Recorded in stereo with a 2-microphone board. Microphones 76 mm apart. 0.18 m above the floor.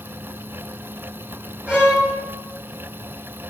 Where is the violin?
15° right (ahead or behind), 2.5 m.